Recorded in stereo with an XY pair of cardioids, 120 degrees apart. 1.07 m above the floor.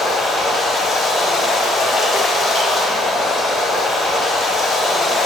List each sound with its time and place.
0.0 s running water: 40° left, 1.8 m